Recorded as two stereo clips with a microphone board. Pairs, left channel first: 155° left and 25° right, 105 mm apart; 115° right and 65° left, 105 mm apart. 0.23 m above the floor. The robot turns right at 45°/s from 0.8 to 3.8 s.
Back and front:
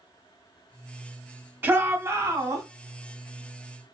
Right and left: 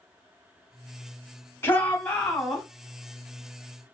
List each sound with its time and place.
1.6 s a shout: 70° right, 1.5 m; by 2.6 s 25° right, 1.5 m